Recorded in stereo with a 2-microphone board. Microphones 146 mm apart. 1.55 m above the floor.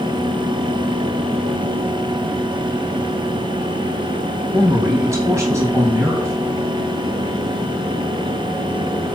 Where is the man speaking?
15° right (ahead or behind), 2 m.